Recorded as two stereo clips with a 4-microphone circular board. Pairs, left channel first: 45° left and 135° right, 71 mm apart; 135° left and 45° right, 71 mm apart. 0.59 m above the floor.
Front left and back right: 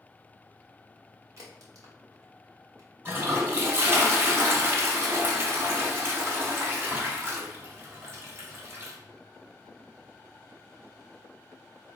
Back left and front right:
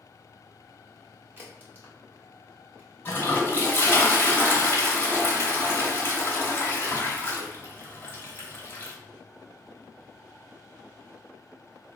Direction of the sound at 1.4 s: 100° right.